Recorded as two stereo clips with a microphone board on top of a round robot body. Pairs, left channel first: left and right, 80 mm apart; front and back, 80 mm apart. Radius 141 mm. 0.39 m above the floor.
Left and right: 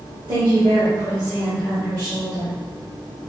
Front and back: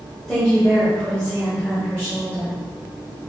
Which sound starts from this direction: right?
A woman speaking, at 0.3 s.